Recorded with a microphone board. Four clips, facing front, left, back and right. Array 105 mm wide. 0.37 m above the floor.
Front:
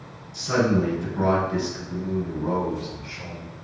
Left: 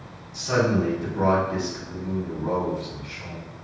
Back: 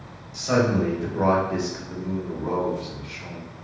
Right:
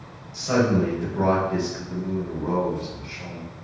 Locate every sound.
0.3 s a man speaking: 170° right, 1.5 m; by 3.5 s 15° right, 1.0 m